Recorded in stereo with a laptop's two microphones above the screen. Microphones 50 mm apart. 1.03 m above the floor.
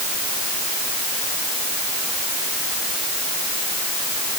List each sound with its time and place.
Only background noise.